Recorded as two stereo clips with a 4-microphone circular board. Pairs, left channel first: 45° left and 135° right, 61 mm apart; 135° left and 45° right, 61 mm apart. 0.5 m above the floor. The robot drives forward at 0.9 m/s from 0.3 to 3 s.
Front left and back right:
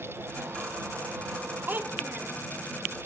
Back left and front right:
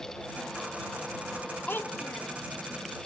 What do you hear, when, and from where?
1.7 s a child speaking: straight behind, 0.6 m